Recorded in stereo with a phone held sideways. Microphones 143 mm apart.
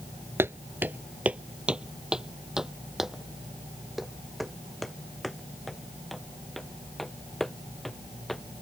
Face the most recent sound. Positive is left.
turn(degrees=0)  # may be behind; listen again after turning